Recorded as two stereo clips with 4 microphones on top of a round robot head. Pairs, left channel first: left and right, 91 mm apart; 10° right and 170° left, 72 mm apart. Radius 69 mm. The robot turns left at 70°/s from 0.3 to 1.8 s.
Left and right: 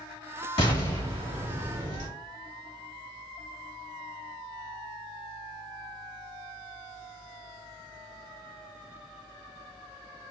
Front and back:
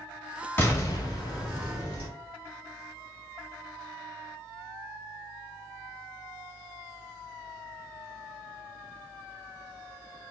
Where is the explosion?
55° left, 2 m; by 2.1 s 30° right, 2 m.